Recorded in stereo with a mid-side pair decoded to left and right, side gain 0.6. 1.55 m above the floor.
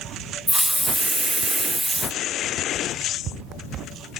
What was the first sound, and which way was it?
A hiss, straight ahead.